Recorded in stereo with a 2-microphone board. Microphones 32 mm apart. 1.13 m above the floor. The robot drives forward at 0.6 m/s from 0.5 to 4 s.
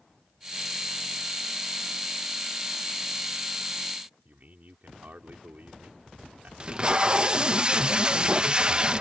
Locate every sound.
4.2 s a man speaking: 55° right (ahead or behind)
6.6 s tape being pulled: 30° right (ahead or behind)